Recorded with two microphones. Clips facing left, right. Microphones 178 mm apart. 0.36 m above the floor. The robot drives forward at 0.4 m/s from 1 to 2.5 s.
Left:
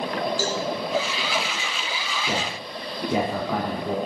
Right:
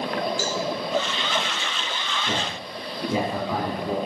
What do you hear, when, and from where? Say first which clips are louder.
0.4 s a cowbell: left 1 dB; 20° right (ahead or behind), 4 m
2.3 s a man speaking: left 2 dB; 5° left (ahead or behind), 5 m